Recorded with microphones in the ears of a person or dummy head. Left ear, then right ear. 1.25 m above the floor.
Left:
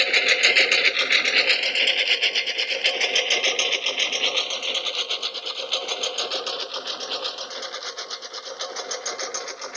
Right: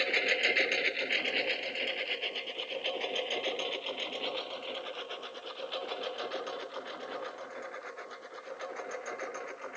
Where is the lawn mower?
35° left (ahead or behind); by 9.8 s 75° left (ahead or behind).